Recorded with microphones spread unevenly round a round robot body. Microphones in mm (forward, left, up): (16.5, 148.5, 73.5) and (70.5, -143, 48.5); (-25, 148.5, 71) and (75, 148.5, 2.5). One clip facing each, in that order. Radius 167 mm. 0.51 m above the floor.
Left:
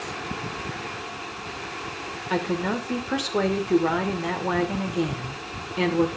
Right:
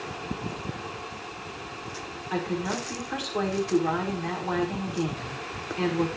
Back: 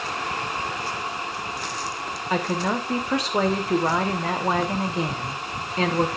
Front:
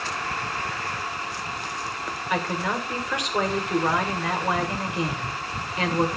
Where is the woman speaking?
110° left, 2 m.